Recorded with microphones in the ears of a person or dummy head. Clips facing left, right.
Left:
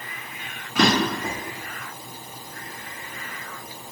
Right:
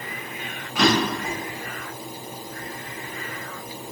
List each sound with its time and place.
0.8 s a drawer: 55° left (ahead or behind), 1.6 m